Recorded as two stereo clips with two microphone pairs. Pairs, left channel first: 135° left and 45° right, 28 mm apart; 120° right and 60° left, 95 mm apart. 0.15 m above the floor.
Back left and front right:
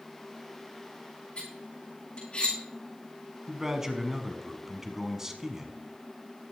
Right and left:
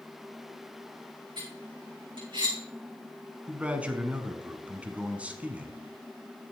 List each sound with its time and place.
1.4 s cutlery clinking: 90° left, 6 m
3.5 s a man speaking: 10° left, 1.3 m